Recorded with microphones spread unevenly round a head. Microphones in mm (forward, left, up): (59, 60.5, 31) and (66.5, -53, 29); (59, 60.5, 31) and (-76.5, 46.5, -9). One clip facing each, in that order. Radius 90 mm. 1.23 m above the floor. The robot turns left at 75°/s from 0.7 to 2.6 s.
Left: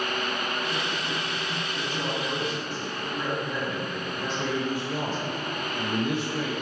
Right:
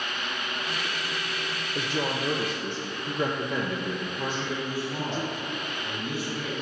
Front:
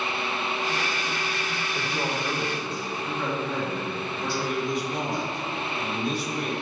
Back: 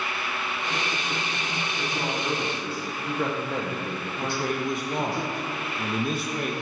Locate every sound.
1.8 s a woman speaking: 60° right, 0.8 m; by 5.2 s 120° right, 0.8 m
4.2 s a man speaking: 140° left, 0.9 m